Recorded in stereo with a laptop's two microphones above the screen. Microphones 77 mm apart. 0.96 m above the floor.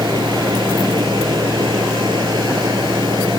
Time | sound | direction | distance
0.0 | a machine running | 75° right (ahead or behind) | ?